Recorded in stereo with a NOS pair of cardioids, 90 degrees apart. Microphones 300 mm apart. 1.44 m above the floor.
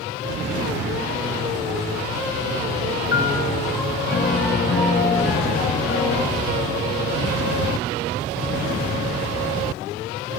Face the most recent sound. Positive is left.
turn(degrees=40)